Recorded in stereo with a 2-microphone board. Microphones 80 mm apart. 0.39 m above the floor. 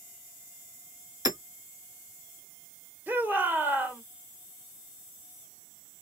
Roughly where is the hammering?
Right.